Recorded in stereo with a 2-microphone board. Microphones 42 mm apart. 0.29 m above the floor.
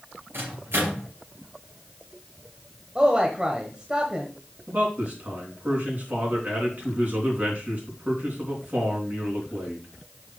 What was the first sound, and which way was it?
A microwave, 75° right (ahead or behind).